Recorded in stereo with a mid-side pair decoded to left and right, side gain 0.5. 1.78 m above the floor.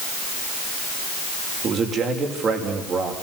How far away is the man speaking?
About 7 m.